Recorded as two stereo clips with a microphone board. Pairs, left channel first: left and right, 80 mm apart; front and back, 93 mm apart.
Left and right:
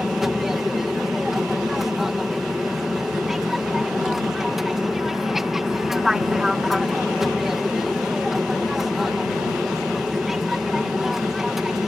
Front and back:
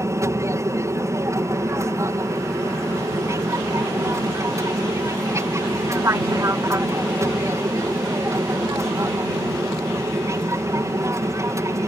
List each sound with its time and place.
0.0 s an aircraft: 175° right